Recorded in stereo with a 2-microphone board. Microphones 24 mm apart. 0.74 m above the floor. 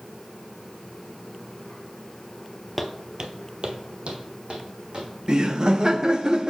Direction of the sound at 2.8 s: 5° right (ahead or behind).